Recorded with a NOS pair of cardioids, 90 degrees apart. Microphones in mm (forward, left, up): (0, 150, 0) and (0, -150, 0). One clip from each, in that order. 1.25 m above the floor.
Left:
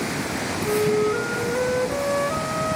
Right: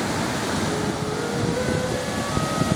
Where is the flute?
65° left, 1.2 m.